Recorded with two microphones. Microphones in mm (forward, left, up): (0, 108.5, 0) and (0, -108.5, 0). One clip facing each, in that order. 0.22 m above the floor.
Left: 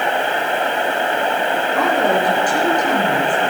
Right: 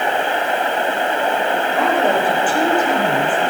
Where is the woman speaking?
40° left (ahead or behind), 4.5 m.